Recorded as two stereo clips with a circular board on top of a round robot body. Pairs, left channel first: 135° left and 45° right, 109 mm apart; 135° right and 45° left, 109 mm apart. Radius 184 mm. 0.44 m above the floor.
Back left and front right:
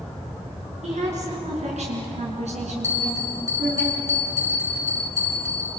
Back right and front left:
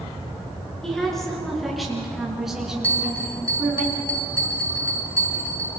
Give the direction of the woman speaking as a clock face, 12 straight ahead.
2 o'clock.